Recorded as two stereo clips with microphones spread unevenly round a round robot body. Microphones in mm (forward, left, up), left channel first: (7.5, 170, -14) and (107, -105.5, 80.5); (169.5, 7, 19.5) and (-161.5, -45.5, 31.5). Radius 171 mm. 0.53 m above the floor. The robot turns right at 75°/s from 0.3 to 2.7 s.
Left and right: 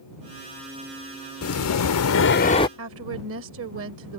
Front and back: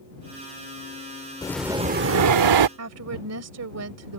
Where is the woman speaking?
125° right.